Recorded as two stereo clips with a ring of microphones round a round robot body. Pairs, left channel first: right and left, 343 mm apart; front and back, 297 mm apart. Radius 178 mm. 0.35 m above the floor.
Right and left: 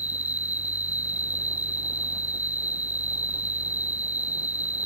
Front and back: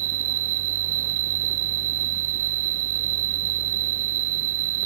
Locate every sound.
0.0 s an insect: 175° left